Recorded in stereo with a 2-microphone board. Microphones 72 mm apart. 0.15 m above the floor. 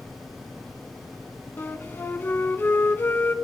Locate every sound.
1.6 s a flute: 30° left (ahead or behind), 0.6 m